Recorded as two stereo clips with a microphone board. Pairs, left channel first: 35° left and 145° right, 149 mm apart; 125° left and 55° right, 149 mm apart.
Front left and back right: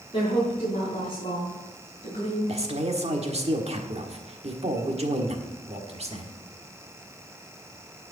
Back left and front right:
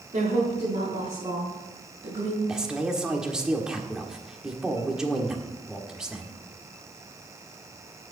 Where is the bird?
No bird in this recording.